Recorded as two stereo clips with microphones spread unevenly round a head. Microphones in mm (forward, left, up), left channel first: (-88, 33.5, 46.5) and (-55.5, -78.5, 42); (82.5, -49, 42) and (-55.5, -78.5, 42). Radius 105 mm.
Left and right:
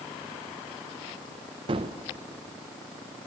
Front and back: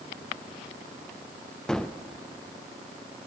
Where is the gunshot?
70° right, 0.6 m.